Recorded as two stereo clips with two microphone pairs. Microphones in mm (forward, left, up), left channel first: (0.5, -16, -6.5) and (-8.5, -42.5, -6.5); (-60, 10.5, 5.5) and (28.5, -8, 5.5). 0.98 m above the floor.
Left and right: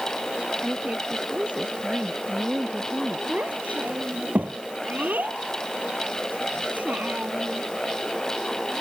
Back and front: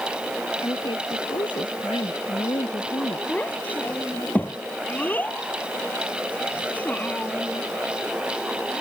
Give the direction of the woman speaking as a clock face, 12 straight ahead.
5 o'clock.